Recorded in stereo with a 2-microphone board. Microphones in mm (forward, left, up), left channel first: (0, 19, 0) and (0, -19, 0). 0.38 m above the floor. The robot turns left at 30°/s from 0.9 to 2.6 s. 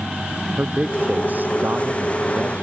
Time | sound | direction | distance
0.6 | a man speaking | 40° right | ?